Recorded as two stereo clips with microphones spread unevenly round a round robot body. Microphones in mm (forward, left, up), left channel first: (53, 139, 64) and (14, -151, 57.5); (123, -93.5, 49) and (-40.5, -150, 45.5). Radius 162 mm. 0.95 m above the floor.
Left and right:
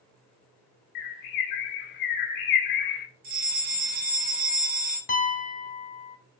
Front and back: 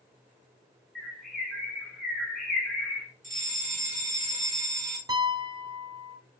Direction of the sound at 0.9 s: 105° left.